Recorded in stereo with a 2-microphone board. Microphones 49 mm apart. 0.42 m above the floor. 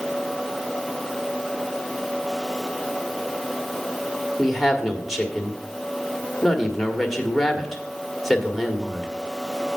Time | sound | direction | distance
4.4 | a woman speaking | centre (ahead or behind) | 1.4 m